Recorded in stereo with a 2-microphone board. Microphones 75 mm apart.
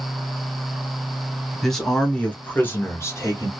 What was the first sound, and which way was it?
A man speaking, 5° left (ahead or behind).